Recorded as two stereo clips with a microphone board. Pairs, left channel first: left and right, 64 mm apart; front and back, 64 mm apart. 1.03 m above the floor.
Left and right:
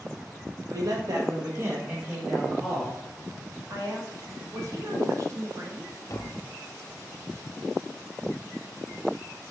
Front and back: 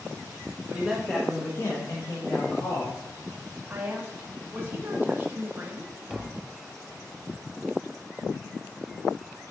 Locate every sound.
0.7 s a man speaking: 105° right, 1.3 m; by 3.0 s straight ahead, 2 m
3.7 s a woman speaking: 120° right, 1.6 m
6.1 s tapping: 85° left, 0.8 m